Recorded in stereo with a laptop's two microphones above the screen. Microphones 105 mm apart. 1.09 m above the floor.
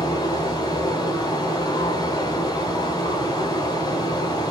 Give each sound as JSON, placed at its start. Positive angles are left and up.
{"t": 0.0, "sound": "running water", "side_deg": 40, "distance_m": 2.0}